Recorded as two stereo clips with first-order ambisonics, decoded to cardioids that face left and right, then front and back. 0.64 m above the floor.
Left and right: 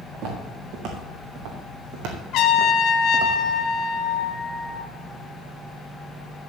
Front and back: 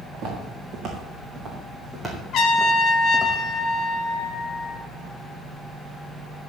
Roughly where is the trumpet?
Ahead left.